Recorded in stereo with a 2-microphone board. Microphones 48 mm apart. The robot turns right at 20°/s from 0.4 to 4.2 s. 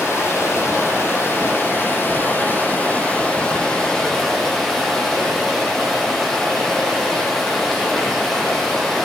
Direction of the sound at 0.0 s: 100° left.